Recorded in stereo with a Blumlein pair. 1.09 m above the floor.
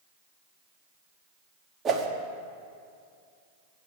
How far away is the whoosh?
About 1.1 m.